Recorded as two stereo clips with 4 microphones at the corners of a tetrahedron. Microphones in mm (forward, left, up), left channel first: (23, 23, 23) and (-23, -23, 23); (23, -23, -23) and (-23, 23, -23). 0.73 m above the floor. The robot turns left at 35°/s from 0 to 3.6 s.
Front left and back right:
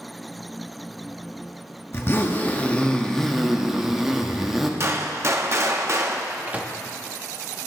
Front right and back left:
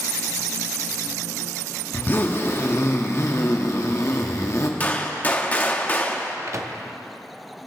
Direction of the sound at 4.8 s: 100° right.